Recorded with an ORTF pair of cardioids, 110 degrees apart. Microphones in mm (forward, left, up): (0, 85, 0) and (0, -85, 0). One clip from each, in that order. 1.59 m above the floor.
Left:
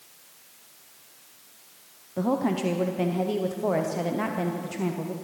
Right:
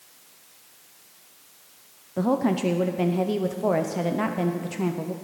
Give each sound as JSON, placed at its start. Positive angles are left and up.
{"t": 2.2, "sound": "a woman speaking", "azimuth_deg": -10, "distance_m": 0.6}